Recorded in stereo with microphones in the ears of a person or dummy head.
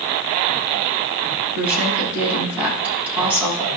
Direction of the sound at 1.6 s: 10° right (ahead or behind).